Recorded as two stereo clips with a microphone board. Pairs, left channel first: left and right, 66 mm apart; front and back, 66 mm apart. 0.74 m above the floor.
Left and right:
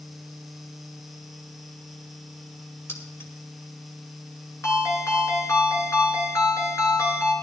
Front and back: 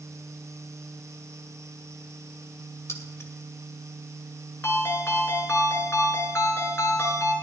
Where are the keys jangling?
40° left, 2.5 m.